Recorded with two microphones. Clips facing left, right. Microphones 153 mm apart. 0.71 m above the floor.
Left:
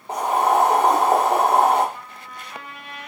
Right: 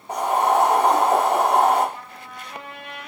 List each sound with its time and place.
0.1 s boiling: 25° left (ahead or behind), 1.2 m
1.9 s a trumpet: 25° right (ahead or behind), 0.8 m